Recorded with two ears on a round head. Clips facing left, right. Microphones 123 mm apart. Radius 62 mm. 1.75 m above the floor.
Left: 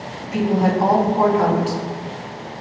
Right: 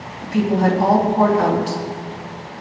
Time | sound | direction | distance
0.2 | a woman speaking | 10° left (ahead or behind) | 3.5 m